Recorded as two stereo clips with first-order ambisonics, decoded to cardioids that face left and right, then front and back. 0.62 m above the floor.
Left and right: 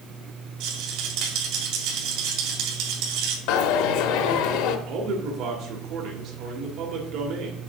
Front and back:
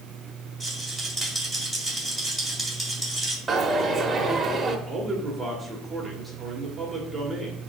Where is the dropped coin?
100° left, 0.8 m.